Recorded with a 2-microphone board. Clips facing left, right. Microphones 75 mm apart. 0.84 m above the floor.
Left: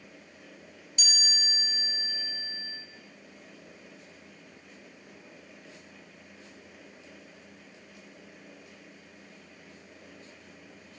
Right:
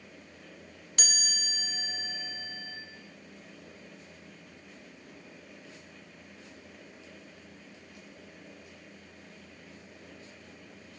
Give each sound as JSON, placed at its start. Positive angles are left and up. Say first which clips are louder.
{"t": 1.0, "sound": "a chime", "louder": "left 1 dB", "side_deg": -60, "distance_m": 4.0}